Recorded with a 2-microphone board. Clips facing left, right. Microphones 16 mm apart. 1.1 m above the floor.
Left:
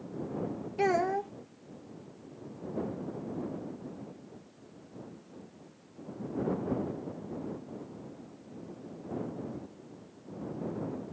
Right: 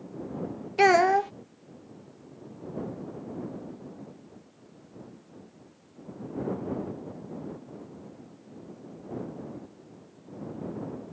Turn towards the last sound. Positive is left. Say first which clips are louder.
# right 9 dB
turn(degrees=-45)  # may be behind; listen again after turning